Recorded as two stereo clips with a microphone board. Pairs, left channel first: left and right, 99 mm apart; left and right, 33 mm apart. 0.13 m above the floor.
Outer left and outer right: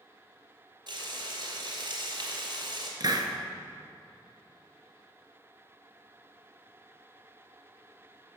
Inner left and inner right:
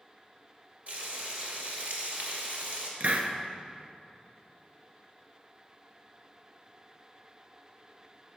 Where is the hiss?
50° right (ahead or behind), 1.0 m.